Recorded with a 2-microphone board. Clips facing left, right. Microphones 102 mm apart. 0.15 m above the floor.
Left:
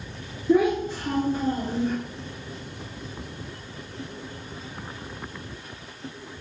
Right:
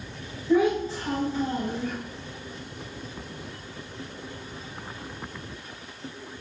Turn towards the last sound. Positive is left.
turn(degrees=25)  # may be behind; listen again after turning